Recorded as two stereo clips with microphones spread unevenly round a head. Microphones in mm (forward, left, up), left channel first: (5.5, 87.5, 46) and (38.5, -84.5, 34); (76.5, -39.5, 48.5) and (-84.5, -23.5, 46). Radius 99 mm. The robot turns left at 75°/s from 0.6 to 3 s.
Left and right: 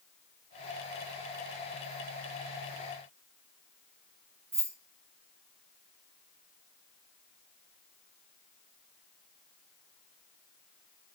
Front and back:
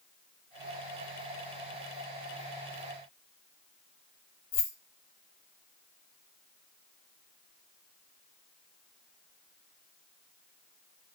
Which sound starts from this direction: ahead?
Keys jangling, at 4.5 s.